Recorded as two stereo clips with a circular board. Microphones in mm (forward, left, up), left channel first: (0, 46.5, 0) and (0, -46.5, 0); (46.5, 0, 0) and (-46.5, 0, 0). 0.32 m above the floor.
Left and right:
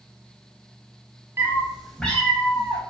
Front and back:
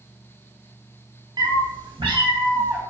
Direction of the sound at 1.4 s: 150° right.